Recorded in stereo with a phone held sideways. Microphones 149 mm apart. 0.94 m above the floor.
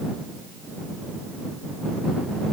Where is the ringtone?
I don't hear a ringtone.